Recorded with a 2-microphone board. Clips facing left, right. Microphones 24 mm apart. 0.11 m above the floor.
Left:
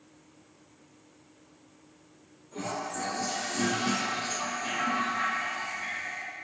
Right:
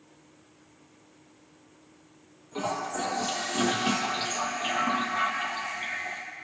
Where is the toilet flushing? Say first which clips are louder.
Right 3 dB; 55° right (ahead or behind), 0.8 m.